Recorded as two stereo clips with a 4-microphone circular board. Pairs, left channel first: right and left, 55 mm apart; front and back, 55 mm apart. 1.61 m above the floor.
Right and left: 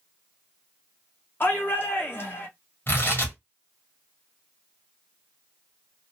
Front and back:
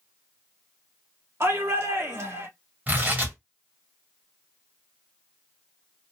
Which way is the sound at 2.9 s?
130° right.